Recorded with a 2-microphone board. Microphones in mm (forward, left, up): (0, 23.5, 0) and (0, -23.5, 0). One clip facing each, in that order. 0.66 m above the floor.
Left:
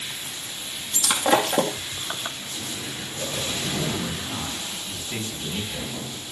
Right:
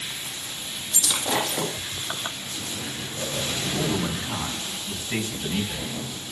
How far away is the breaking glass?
About 3 m.